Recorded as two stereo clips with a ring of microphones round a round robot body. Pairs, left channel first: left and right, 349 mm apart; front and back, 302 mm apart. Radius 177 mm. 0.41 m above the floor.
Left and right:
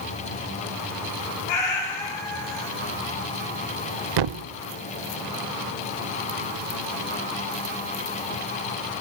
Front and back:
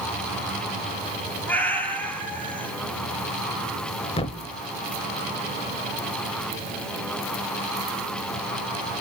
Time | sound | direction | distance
1.5 | a cat meowing | 85° left | 4.5 m
4.2 | a thud | 75° right | 0.7 m